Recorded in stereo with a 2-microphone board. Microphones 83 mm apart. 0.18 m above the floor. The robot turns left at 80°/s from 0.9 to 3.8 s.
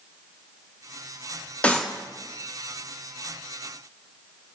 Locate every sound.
1.6 s a clap: 15° left (ahead or behind), 5 m; by 1.9 s 35° left (ahead or behind), 5 m